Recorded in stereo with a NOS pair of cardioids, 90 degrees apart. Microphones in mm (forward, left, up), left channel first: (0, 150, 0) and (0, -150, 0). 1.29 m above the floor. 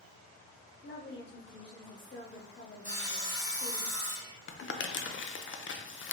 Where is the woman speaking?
40° left, 1.4 m.